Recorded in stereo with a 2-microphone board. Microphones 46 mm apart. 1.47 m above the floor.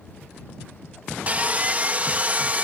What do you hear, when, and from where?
1.3 s sawing: 30° right (ahead or behind)